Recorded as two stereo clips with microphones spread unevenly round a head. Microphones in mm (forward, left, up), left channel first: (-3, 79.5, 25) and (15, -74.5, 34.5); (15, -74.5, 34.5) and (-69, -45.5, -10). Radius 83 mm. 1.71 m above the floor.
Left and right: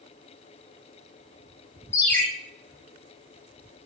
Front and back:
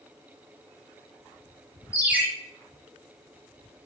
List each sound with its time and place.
1.9 s a ringtone: 25° left, 0.8 m